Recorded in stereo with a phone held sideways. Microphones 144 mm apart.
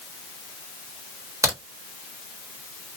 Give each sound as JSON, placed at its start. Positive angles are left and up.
{"t": 1.4, "sound": "a crack", "side_deg": -20, "distance_m": 1.3}